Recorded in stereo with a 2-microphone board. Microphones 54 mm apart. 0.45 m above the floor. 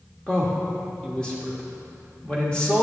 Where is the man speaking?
15° left (ahead or behind), 1.2 m.